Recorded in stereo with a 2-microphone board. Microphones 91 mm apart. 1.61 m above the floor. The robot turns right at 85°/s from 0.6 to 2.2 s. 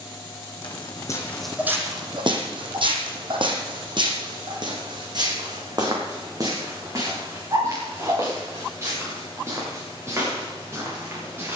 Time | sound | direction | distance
0.6 | footsteps | 65° left (ahead or behind) | 3.5 m